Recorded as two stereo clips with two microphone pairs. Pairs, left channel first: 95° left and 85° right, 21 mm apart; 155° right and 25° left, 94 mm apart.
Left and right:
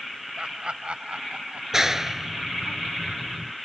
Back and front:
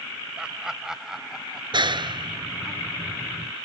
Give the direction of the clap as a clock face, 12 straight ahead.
12 o'clock.